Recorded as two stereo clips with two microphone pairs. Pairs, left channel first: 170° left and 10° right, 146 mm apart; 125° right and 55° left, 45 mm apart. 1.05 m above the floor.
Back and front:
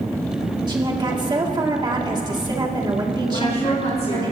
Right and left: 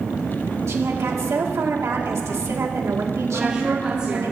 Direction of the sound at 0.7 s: 50° left.